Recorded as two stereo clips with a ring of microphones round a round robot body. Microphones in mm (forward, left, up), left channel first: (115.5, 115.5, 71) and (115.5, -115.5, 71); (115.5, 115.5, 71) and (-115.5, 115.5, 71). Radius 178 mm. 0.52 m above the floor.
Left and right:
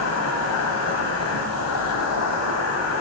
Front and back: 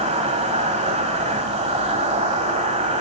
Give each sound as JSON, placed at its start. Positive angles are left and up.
{"t": 0.0, "sound": "an insect", "azimuth_deg": 115, "distance_m": 1.3}